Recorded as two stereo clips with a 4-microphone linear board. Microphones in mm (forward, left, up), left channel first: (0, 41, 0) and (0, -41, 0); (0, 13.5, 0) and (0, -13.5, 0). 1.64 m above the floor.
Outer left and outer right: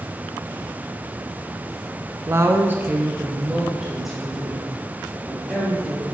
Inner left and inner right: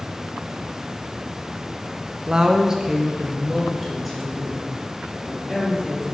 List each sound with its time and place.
2.3 s a woman speaking: 35° right (ahead or behind), 0.5 m; by 6.0 s 5° left (ahead or behind), 3 m